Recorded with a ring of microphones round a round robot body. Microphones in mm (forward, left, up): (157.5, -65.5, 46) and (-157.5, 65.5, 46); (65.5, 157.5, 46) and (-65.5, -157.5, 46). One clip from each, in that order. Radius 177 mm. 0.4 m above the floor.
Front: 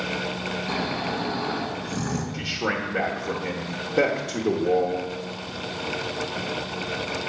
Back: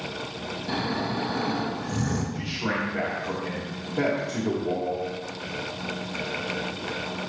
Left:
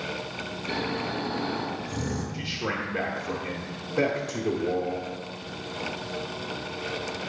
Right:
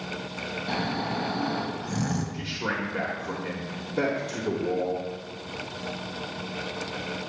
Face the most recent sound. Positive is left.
turn(degrees=-35)